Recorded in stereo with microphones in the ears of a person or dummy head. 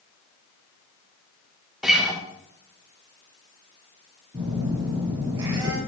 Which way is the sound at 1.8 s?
Centre (ahead or behind).